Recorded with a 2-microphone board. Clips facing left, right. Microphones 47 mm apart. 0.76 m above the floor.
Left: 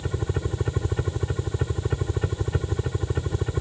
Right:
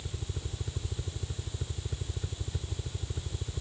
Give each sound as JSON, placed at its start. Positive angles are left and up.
{"t": 0.0, "sound": "a helicopter", "side_deg": 60}